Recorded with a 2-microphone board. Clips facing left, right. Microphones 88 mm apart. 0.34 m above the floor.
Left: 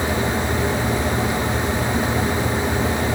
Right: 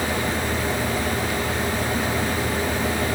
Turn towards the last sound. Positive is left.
No sound to turn to.